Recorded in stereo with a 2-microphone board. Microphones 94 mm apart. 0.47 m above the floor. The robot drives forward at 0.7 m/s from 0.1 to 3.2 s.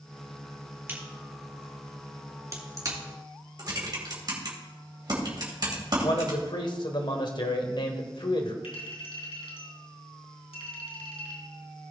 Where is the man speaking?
55° left (ahead or behind), 1.4 m.